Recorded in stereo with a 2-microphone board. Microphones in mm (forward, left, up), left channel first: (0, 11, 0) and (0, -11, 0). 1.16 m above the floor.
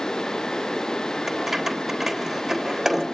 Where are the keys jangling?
10° right (ahead or behind), 3.5 m.